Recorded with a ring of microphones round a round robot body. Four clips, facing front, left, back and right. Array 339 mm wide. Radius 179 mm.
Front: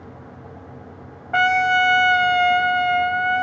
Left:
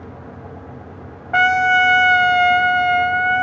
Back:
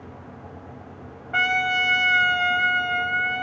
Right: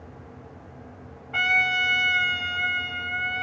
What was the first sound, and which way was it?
A trumpet, 65° left.